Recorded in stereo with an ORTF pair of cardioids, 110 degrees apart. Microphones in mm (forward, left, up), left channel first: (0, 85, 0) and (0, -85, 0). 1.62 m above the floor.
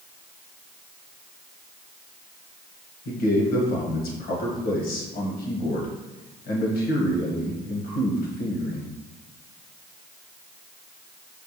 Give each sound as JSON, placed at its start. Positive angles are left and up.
{"t": 3.0, "sound": "a man speaking", "azimuth_deg": 70, "distance_m": 1.3}